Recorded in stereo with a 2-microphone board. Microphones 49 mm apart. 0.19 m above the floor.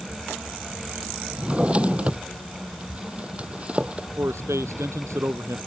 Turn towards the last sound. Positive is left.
turn(degrees=-70)  # may be behind; listen again after turning